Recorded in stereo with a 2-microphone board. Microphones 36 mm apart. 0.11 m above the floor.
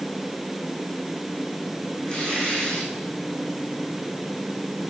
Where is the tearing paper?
25° left (ahead or behind), 5.5 m.